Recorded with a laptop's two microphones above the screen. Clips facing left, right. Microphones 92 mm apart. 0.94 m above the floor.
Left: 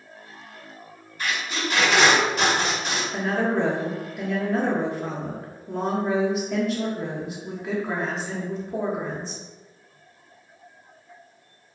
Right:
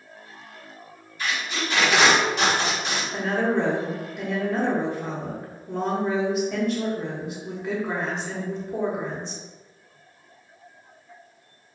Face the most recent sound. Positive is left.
turn(degrees=0)  # may be behind; listen again after turning